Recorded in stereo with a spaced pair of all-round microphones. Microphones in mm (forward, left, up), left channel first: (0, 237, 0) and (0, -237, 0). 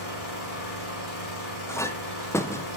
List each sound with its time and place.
0.0 s an engine running: 75° left (ahead or behind), 4.5 m
1.7 s a clink: 5° left (ahead or behind), 0.7 m